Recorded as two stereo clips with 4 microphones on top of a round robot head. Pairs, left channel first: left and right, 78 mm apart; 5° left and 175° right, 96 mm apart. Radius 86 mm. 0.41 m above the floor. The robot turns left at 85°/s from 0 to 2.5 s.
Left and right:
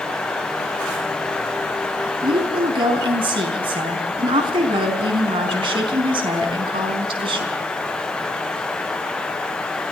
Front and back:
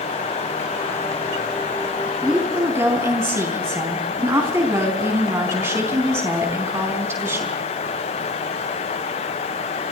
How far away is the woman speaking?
About 4.5 m.